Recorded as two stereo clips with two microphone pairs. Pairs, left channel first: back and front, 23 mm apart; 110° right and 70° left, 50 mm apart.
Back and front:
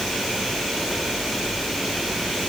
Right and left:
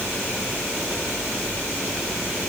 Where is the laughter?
I don't hear laughter.